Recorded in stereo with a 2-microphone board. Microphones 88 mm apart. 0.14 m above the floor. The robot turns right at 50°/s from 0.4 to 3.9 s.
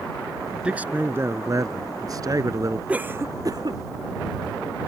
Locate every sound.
0.6 s a man speaking: 165° right; by 2.8 s 55° right
2.9 s a cough: 15° right (ahead or behind); by 3.8 s 60° right (ahead or behind)